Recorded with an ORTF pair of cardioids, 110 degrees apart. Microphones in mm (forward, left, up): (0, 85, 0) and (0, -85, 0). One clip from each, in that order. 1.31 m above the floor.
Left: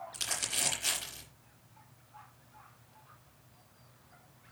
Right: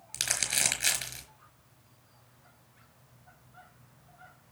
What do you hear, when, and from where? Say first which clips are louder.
0.1 s crumpling: right 5 dB; 65° right, 4.5 m